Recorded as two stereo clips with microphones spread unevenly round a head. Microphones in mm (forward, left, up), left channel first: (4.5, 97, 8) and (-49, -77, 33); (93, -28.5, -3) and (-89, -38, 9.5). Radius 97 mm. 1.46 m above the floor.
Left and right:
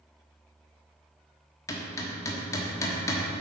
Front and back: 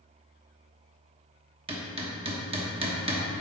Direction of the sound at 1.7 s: 150° left.